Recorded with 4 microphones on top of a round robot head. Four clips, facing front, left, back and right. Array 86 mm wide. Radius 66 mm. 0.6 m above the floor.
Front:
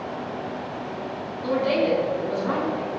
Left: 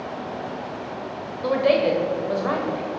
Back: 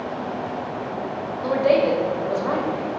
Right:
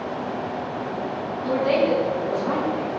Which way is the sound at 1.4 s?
120° left.